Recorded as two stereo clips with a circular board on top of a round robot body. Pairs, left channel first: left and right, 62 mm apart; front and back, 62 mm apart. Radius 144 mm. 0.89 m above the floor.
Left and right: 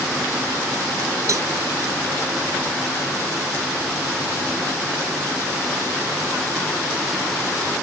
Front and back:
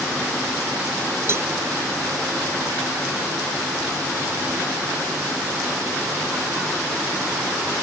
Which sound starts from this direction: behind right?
A cowbell, at 1.3 s.